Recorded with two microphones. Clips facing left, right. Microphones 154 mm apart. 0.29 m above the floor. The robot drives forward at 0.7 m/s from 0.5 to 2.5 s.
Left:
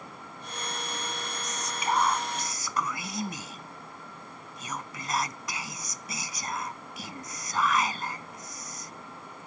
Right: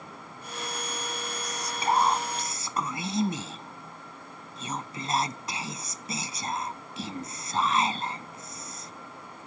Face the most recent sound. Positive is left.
turn(degrees=-25)  # may be behind; listen again after turning